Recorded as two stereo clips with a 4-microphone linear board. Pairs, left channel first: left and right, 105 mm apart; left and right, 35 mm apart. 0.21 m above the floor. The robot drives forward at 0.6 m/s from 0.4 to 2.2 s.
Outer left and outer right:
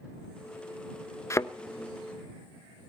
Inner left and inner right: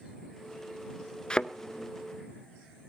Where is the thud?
30° left (ahead or behind), 0.6 m; by 1.5 s 25° left (ahead or behind), 0.7 m.